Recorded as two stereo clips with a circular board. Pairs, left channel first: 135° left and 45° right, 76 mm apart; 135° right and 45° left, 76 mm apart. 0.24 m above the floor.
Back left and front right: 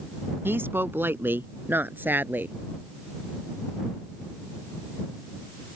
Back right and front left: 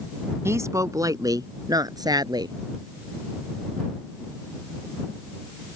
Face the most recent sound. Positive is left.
turn(degrees=20)